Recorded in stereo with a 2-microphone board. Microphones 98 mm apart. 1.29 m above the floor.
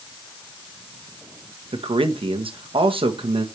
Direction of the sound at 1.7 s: 65° right (ahead or behind).